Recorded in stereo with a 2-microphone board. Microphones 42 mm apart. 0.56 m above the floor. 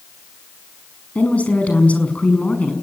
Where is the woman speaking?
35° left (ahead or behind), 5.5 m.